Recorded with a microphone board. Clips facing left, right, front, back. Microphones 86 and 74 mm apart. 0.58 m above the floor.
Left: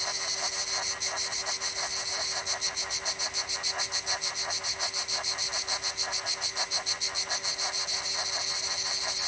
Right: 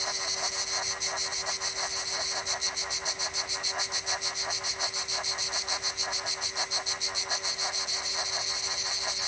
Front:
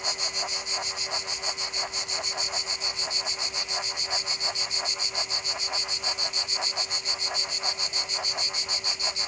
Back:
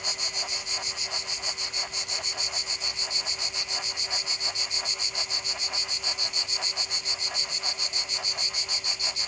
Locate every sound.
Only background noise.